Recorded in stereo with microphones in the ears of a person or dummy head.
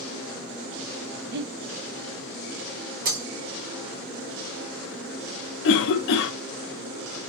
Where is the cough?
55° left (ahead or behind), 0.5 m.